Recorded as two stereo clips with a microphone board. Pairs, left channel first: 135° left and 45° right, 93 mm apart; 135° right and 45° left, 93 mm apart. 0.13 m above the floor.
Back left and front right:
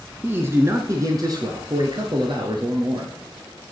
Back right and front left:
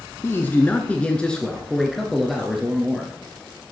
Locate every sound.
0.2 s a man speaking: 95° right, 1.2 m; by 3.1 s 35° right, 2 m